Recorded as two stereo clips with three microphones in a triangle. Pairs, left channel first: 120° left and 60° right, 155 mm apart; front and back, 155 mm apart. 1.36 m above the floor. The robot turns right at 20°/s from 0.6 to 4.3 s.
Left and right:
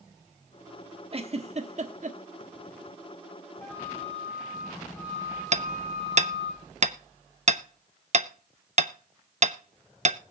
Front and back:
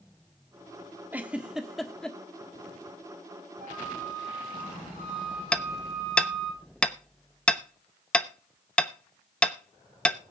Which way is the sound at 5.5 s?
80° right.